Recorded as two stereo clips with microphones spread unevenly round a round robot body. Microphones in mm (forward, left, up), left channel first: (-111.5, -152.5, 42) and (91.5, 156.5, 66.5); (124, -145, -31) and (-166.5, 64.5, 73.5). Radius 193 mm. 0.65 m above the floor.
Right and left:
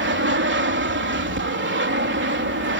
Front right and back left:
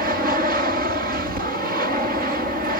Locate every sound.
0.0 s an aircraft: 70° left